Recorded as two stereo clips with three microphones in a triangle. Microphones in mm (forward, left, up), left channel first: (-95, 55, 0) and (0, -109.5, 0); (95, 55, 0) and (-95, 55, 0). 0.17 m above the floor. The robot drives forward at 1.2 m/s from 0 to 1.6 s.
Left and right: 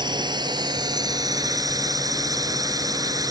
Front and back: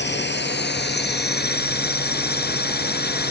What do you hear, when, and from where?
0.0 s a drone: 5° left